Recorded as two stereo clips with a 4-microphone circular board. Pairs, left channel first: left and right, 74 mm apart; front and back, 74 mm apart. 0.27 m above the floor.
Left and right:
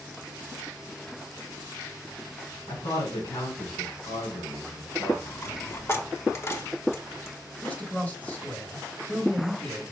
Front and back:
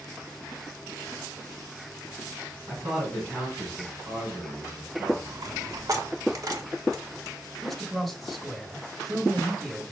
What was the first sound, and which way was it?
A man speaking, 115° left.